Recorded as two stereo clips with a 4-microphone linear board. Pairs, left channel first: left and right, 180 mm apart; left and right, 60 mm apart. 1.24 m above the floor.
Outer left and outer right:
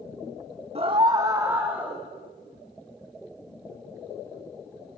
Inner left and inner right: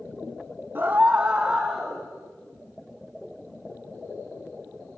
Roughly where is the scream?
Right.